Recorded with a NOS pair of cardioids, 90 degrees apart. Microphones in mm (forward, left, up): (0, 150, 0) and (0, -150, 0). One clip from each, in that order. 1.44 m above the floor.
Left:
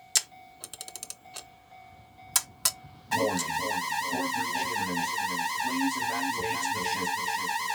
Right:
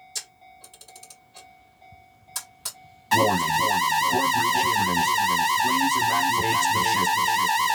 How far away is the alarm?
About 0.6 m.